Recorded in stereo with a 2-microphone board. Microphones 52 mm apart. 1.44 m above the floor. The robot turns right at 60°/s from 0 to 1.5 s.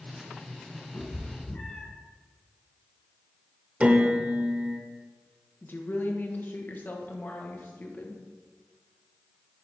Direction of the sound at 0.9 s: 60° left (ahead or behind).